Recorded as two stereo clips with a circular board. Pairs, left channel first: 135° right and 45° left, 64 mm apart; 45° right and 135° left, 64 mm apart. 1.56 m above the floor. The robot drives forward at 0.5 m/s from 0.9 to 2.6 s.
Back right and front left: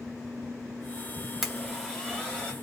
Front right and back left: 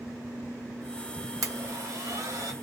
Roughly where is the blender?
Behind left.